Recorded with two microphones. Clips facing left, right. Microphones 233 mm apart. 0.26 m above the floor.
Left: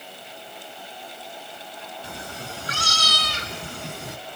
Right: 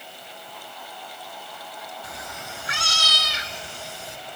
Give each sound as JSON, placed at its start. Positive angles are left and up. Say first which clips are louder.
{"t": 2.0, "sound": "a cat meowing", "louder": "left 3 dB", "side_deg": 30, "distance_m": 1.6}